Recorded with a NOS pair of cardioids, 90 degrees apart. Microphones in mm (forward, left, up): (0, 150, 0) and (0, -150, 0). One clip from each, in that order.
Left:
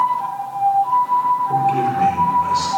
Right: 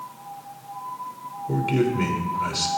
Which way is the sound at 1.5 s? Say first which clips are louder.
Left 7 dB; 65° right.